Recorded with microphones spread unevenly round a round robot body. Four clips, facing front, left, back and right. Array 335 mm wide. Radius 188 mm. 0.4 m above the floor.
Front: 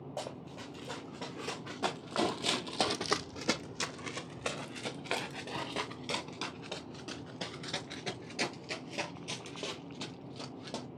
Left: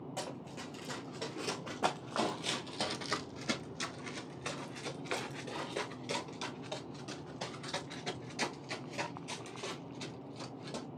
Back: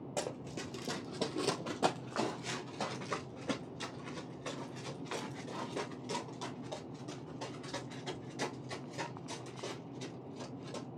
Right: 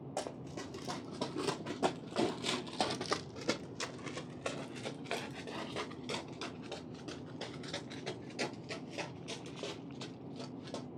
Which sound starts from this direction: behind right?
Running footsteps, at 0.2 s.